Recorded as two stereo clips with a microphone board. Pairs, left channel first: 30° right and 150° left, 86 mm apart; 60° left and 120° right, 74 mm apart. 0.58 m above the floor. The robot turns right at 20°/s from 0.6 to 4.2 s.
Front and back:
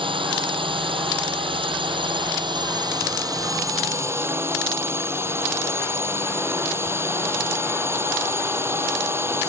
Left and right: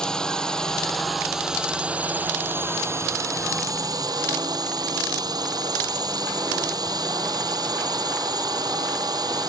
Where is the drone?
140° left; by 9.5 s 150° right.